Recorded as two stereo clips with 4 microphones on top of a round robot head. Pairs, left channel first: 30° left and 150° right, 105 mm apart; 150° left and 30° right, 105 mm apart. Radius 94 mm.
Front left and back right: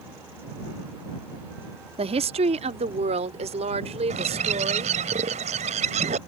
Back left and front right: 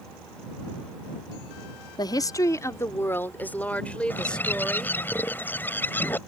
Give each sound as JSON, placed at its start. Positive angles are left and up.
{"t": 2.0, "sound": "a woman speaking", "azimuth_deg": -165}
{"t": 4.1, "sound": "a bird", "azimuth_deg": -140}